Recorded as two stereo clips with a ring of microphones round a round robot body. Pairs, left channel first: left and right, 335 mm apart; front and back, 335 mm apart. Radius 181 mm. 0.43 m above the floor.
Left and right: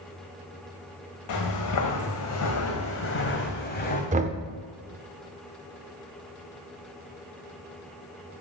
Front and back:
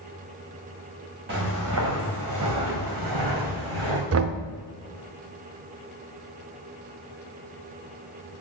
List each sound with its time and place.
1.3 s footsteps: 120° left, 2 m; by 4.0 s 155° left, 2 m
4.1 s knocking: 150° right, 0.6 m